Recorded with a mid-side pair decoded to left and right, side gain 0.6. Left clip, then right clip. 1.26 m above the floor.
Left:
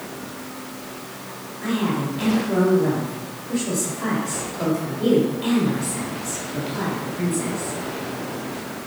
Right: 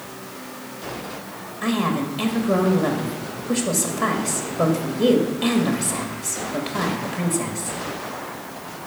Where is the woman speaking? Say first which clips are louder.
Right 2 dB; 65° right, 1.7 m.